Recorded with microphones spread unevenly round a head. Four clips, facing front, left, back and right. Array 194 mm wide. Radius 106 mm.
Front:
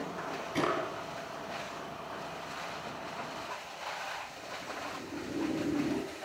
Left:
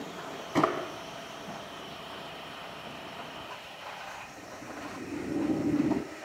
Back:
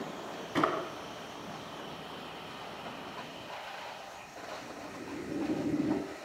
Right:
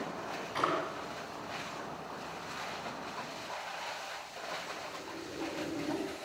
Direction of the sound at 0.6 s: 105° left.